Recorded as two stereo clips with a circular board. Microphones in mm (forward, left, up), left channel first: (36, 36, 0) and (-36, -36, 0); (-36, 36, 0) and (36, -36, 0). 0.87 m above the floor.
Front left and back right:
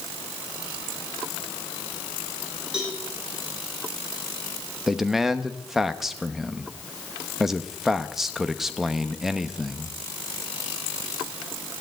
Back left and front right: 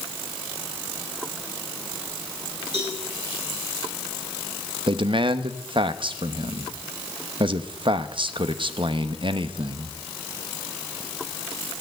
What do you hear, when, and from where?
2.7 s a cowbell: 55° right, 9.5 m
4.9 s a man speaking: 50° right, 1.0 m